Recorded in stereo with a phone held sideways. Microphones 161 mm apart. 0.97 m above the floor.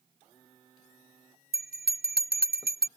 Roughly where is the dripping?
I don't hear dripping.